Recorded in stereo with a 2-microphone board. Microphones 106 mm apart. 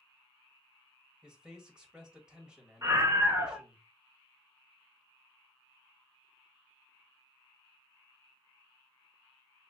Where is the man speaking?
10° right (ahead or behind), 1.5 m.